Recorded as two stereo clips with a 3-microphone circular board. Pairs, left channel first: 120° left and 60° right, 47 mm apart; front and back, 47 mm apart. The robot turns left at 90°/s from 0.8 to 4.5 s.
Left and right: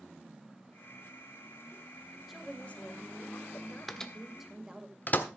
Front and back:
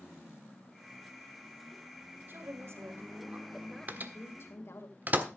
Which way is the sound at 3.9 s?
155° right.